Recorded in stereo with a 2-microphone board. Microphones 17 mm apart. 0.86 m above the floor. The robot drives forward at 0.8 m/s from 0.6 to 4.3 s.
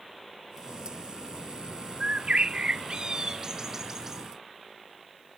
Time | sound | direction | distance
2.0 | a bird | 80° right | 0.7 m